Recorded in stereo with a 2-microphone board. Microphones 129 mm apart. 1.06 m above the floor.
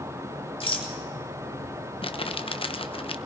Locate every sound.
0.6 s a rattle: 45° left (ahead or behind), 3 m
2.0 s crumpling: 45° left (ahead or behind), 0.9 m